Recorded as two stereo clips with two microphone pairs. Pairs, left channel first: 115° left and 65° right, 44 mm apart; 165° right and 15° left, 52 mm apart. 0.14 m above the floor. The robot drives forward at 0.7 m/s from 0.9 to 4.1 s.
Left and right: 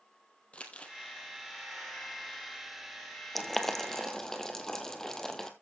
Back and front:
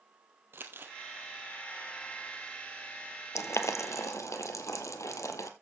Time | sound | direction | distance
0.5 | crumpling | 55° left | 2 m
3.4 | boiling | 155° right | 1.2 m